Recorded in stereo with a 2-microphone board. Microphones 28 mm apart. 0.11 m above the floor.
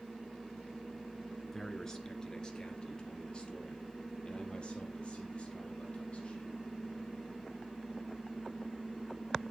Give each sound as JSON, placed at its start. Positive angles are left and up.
{"t": 1.5, "sound": "a man speaking", "side_deg": 15, "distance_m": 1.4}